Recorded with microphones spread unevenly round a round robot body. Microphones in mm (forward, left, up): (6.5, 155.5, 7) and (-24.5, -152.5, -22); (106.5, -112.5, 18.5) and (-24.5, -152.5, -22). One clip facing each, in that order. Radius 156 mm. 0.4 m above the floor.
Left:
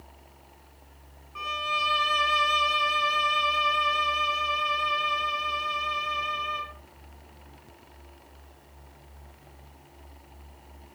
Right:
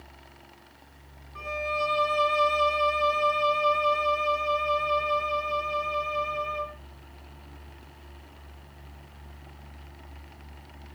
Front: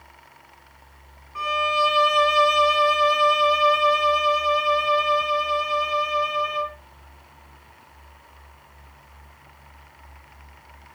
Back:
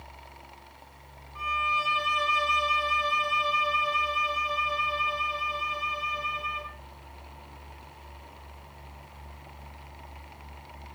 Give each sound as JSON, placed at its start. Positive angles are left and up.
{"t": 1.4, "sound": "a violin", "azimuth_deg": 5, "distance_m": 0.5}